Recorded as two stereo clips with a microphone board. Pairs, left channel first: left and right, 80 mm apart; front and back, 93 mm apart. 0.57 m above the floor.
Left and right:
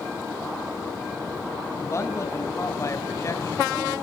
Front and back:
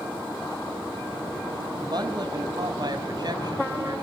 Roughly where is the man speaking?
Behind left.